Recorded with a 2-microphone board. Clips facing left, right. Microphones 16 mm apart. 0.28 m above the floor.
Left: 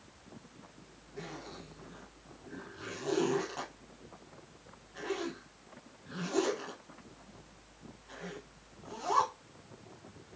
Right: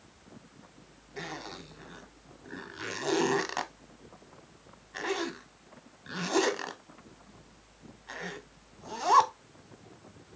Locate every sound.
1.2 s a zipper: 65° right (ahead or behind), 0.6 m